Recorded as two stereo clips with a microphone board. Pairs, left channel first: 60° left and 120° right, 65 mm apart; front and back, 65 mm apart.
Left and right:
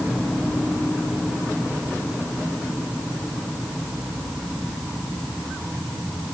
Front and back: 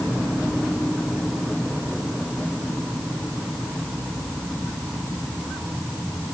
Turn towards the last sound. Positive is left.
No sound to turn to.